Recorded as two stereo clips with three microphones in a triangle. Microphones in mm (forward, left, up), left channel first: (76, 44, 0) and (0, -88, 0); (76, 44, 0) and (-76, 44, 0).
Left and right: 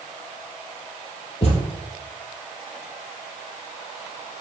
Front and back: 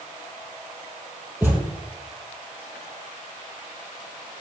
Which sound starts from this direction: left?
A thud, at 1.4 s.